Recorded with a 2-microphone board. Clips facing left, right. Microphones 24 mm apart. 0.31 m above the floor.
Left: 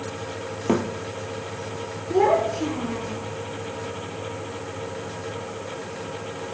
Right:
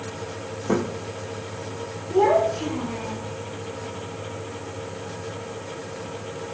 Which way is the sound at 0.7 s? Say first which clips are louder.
Left 1 dB; 60° left (ahead or behind).